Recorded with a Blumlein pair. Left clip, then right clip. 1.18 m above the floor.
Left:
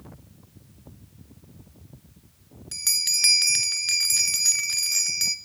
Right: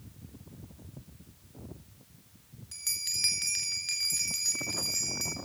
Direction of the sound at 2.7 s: 65° left.